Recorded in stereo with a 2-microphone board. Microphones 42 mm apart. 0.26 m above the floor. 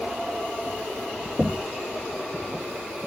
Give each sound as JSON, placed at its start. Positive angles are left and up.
{"t": 1.4, "sound": "knocking", "side_deg": -15}